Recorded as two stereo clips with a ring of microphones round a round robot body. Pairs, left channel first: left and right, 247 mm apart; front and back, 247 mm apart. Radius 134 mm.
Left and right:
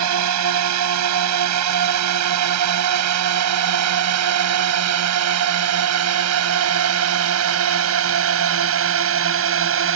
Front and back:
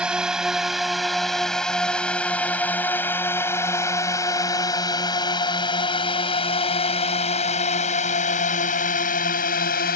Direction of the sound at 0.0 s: 95° right.